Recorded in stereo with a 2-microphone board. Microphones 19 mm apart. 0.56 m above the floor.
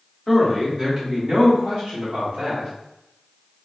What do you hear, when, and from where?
0.3 s a man speaking: centre (ahead or behind), 1.0 m; by 2.7 s 65° right (ahead or behind), 2 m